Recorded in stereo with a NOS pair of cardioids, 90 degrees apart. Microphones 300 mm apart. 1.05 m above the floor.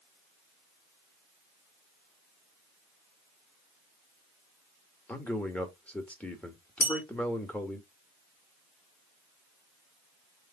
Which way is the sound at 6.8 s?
30° left.